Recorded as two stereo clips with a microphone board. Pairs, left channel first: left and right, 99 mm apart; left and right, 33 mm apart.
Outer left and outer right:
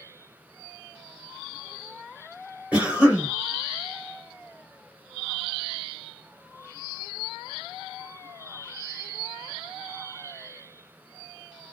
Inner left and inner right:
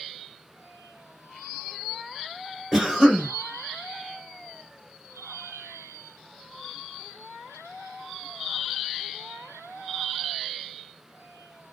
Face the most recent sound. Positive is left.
turn(degrees=-15)  # may be behind; listen again after turning